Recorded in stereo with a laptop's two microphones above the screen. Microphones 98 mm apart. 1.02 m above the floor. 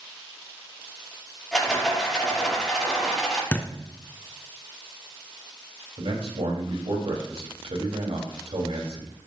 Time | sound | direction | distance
1.5 | a rattle | 5° left (ahead or behind) | 7.5 m
3.5 | a thud | 15° left (ahead or behind) | 2 m
6.0 | a man speaking | 75° right (ahead or behind) | 4.5 m